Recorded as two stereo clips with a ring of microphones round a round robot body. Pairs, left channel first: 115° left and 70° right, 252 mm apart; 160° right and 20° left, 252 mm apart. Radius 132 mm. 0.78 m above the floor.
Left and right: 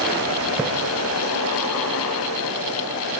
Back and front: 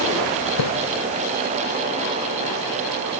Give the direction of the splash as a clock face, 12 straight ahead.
5 o'clock.